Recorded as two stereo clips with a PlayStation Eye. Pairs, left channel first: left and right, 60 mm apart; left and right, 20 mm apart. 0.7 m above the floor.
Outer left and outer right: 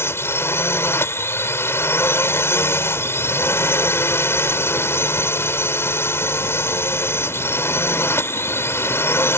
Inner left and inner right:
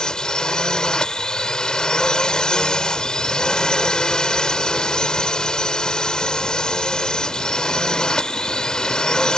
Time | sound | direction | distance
0.0 | a drone | 45° left (ahead or behind) | ?